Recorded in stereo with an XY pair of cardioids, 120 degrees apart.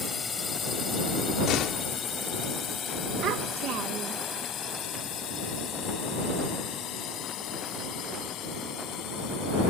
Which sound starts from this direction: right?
A child speaking, at 3.2 s.